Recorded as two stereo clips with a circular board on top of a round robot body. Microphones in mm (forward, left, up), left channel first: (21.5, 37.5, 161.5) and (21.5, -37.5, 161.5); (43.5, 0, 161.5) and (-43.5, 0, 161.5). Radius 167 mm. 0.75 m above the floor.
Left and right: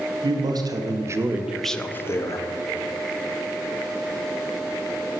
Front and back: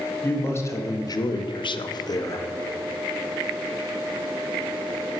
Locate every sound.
0.2 s a man speaking: 65° right, 1.2 m; by 2.4 s 50° left, 0.9 m